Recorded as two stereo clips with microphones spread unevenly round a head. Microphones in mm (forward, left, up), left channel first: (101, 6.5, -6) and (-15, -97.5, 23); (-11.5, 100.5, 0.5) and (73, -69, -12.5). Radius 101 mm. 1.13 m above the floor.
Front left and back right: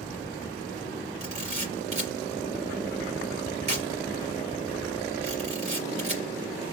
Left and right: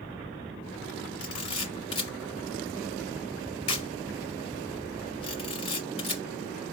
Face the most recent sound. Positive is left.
turn(degrees=175)